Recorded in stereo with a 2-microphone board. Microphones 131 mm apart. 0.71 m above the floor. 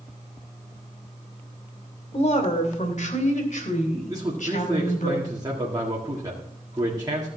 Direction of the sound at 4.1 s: 30° right (ahead or behind).